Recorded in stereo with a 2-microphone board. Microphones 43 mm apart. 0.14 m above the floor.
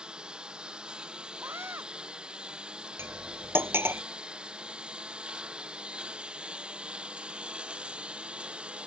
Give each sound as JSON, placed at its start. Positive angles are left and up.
{"t": 0.0, "sound": "a lawn mower", "side_deg": -20}
{"t": 1.4, "sound": "a scream", "side_deg": -75}
{"t": 3.0, "sound": "cutlery clinking", "side_deg": -70}